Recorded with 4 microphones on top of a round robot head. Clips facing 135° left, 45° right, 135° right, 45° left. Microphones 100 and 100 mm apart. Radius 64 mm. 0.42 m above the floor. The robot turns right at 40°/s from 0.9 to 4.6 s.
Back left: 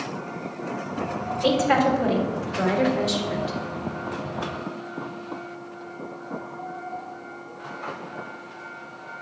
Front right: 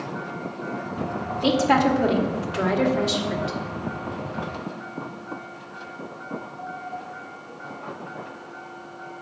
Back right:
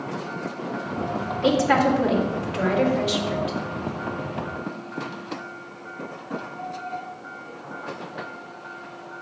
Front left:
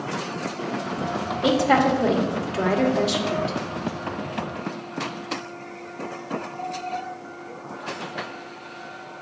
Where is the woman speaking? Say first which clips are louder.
Front right 1 dB, even; 15° right, 1.6 m; by 3.6 s 70° left, 1.6 m.